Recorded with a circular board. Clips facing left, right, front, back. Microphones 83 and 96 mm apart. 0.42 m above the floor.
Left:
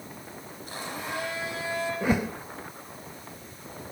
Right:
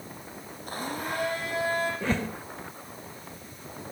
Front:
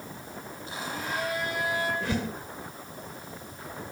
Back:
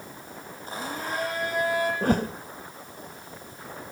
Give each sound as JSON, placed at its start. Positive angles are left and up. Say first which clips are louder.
{"t": 0.7, "sound": "a blender", "louder": "right 3 dB, back 2 dB", "azimuth_deg": -130, "distance_m": 9.5}
{"t": 2.0, "sound": "a whoosh", "louder": "left 3 dB, back 6 dB", "azimuth_deg": 165, "distance_m": 1.5}